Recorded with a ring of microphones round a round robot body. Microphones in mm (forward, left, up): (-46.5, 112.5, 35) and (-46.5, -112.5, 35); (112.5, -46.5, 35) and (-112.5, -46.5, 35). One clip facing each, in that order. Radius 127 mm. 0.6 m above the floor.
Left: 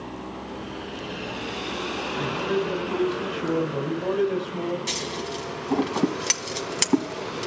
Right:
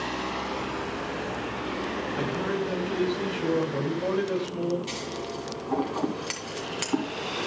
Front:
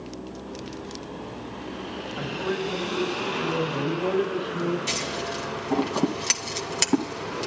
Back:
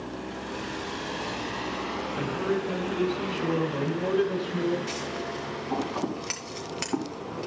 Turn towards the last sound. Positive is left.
turn(degrees=50)